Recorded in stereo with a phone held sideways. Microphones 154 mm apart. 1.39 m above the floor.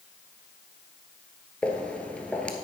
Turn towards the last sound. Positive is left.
turn(degrees=10)  # may be behind; listen again after turning